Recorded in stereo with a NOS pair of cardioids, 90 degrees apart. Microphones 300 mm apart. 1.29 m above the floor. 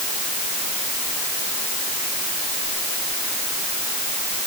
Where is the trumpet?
No trumpet in this recording.